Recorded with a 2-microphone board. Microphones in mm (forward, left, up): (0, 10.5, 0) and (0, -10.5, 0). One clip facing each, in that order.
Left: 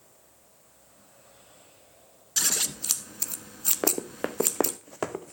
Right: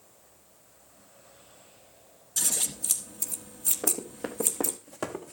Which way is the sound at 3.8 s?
65° left (ahead or behind).